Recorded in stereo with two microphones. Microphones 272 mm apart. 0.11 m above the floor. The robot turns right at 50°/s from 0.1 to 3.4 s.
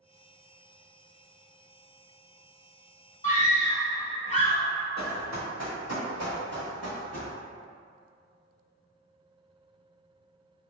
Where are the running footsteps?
80° right, 1.2 m; by 7.3 s 60° right (ahead or behind), 2.5 m.